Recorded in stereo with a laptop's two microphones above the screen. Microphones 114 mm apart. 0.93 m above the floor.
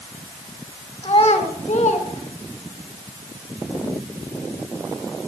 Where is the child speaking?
55° left (ahead or behind), 1.3 m; by 2.9 s 65° left (ahead or behind), 3 m.